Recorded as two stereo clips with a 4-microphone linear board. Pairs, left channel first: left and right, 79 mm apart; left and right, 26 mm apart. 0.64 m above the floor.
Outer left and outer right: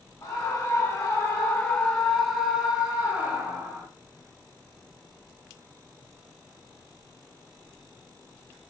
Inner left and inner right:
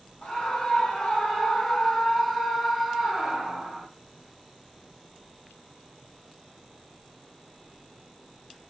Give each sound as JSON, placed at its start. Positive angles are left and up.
{"t": 0.2, "sound": "a scream", "side_deg": 40, "distance_m": 1.4}